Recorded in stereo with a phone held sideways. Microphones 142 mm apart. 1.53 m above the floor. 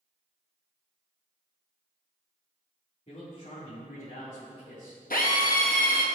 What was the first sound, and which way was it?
A man speaking, 50° left (ahead or behind).